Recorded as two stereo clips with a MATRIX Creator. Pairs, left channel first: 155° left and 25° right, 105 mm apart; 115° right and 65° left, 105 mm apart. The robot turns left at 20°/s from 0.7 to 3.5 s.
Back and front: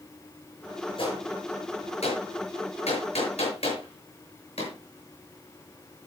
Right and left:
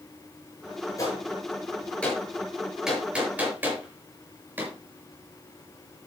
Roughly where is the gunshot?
Behind.